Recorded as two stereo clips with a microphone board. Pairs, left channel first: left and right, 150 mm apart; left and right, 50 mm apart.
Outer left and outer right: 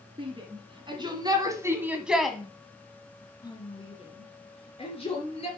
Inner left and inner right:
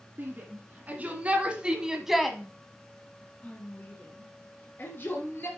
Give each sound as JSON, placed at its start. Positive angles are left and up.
{"t": 0.2, "sound": "a shout", "side_deg": -40, "distance_m": 2.5}